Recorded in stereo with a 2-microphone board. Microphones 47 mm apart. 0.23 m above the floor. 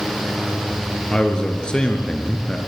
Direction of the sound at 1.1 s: 20° left (ahead or behind).